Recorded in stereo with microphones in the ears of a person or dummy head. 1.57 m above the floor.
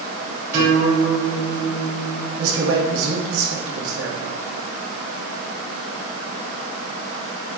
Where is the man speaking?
80° right, 2.5 m.